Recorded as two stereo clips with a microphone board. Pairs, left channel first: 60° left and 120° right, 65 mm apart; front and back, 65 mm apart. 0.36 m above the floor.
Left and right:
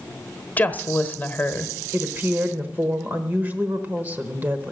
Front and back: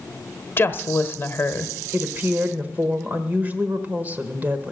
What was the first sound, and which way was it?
A woman speaking, 20° left.